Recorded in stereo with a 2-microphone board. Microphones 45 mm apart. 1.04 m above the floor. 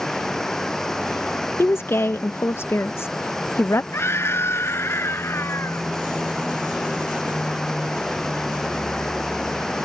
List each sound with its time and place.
0.0 s running water: 15° left (ahead or behind)
1.6 s a woman speaking: 75° left (ahead or behind)
3.9 s a scream: 75° left (ahead or behind)